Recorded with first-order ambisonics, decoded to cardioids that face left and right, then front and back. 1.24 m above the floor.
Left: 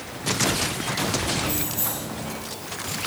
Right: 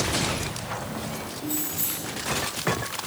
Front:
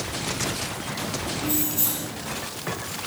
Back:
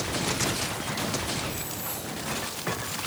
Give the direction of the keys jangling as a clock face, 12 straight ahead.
11 o'clock.